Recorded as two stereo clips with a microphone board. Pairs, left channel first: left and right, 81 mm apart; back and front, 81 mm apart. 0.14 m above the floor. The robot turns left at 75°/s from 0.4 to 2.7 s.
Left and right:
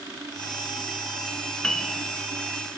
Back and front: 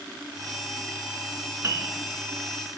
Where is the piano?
15° left, 0.5 m; by 1.9 s 10° right, 0.5 m.